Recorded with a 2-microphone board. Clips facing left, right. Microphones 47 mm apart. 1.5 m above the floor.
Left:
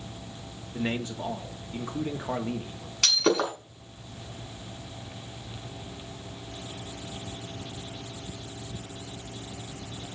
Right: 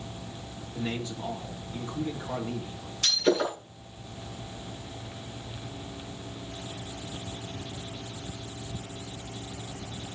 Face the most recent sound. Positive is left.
turn(degrees=80)